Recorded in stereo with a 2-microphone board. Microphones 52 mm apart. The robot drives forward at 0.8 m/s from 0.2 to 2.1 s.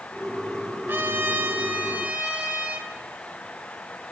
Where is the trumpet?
45° right (ahead or behind), 0.7 m; by 2.9 s 25° right (ahead or behind), 1.2 m.